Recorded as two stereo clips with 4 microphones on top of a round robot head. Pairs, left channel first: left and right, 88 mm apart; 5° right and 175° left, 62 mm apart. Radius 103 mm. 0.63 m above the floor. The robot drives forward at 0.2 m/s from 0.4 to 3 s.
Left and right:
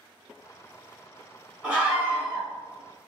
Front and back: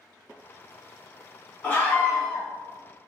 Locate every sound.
1.6 s a scream: 35° right, 1.2 m; by 2.5 s 45° right, 1.2 m